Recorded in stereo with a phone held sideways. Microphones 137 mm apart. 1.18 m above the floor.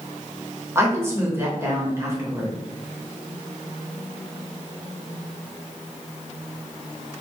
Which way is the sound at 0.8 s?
20° right (ahead or behind).